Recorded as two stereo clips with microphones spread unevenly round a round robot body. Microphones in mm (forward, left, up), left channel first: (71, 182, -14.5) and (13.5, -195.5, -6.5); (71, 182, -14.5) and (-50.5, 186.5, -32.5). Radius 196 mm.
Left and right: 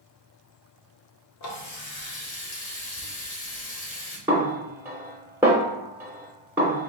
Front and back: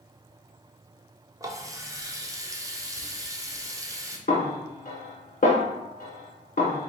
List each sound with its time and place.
1.4 s a running tap: 125° left, 0.9 m
4.3 s a snare drum: 15° right, 1.0 m